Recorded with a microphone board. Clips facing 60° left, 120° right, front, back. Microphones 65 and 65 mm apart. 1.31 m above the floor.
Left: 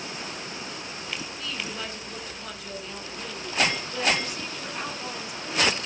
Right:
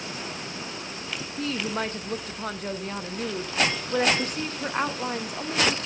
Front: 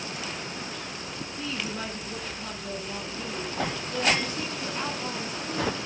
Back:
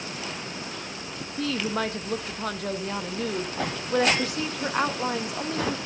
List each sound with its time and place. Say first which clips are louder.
1.4 s a woman speaking: right 6 dB, back 8 dB; 165° right, 1.6 m